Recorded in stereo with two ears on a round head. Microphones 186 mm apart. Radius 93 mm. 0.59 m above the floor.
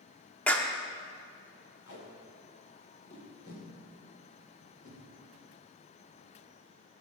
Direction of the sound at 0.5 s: 5° left (ahead or behind).